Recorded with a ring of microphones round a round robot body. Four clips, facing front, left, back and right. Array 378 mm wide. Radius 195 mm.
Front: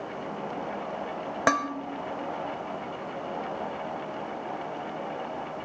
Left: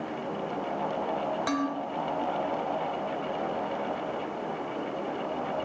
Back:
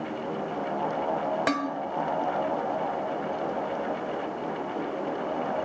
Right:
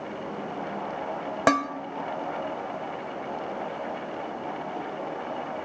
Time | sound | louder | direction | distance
1.5 | dishes clattering | right 9 dB, front 7 dB | 75° right | 1.0 m